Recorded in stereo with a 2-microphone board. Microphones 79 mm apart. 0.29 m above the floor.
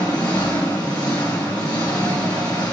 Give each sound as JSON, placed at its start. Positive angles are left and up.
{"t": 0.0, "sound": "an engine running", "side_deg": 70, "distance_m": 1.4}